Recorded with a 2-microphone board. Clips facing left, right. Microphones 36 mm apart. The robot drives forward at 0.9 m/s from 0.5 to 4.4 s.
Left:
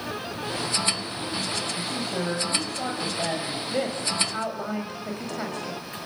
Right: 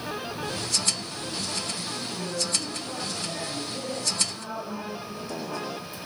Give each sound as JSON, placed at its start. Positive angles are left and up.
{"t": 1.8, "sound": "a man speaking", "side_deg": 75, "distance_m": 6.5}
{"t": 3.7, "sound": "a woman speaking", "side_deg": 60, "distance_m": 6.0}